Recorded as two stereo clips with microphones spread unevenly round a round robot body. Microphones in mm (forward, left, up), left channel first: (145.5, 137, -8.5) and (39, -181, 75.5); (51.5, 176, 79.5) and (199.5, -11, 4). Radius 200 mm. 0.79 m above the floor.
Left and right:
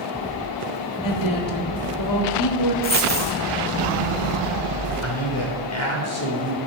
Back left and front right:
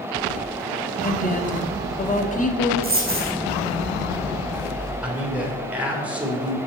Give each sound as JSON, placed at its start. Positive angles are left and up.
{"t": 1.0, "sound": "a woman speaking", "azimuth_deg": 65, "distance_m": 1.8}
{"t": 2.8, "sound": "a dropped coin", "azimuth_deg": 5, "distance_m": 4.0}
{"t": 5.0, "sound": "a man speaking", "azimuth_deg": 30, "distance_m": 3.0}